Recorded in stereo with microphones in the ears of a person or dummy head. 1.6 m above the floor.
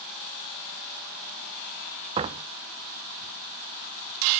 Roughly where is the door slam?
Right.